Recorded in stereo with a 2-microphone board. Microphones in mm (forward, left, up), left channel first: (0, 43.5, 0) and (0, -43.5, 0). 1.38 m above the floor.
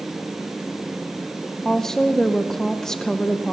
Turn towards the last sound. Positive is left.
turn(degrees=5)  # may be behind; listen again after turning